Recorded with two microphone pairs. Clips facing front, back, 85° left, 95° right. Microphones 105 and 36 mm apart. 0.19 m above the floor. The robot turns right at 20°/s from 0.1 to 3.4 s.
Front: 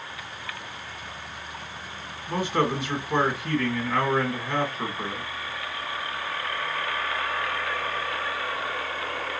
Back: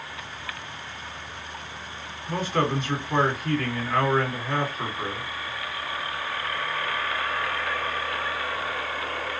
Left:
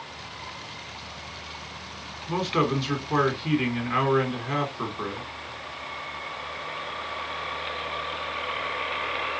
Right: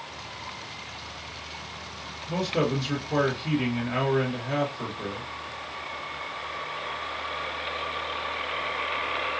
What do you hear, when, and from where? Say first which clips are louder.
2.3 s a man speaking: even, left 2 dB; 75° left, 2.0 m; by 5.3 s 95° left, 2.0 m